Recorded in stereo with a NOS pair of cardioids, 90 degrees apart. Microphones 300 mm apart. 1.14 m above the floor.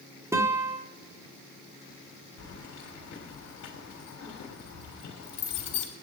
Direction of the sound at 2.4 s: 65° left.